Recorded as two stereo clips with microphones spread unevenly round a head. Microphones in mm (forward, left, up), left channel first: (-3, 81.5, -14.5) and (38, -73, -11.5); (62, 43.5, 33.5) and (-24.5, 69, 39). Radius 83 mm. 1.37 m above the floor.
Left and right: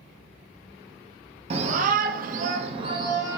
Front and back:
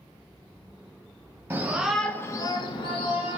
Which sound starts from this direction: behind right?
A shout, at 1.5 s.